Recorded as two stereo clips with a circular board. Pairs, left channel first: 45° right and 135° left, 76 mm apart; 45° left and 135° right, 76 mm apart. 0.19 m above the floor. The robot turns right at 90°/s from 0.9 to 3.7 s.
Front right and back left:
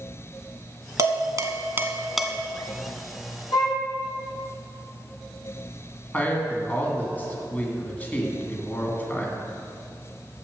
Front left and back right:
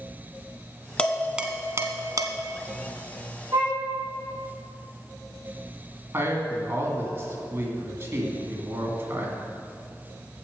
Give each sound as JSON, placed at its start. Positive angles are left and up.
{"t": 1.0, "sound": "dishes clattering", "azimuth_deg": 115, "distance_m": 1.0}
{"t": 3.5, "sound": "a violin", "azimuth_deg": -80, "distance_m": 4.0}
{"t": 6.1, "sound": "a man speaking", "azimuth_deg": -100, "distance_m": 2.0}